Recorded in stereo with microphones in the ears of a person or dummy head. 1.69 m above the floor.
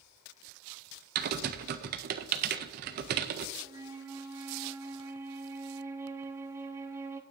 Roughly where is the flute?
Centre.